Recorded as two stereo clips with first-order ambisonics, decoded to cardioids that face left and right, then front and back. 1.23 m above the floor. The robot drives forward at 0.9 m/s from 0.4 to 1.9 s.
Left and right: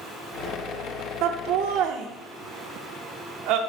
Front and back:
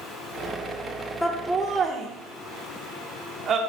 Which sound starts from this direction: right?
Laughter, at 1.2 s.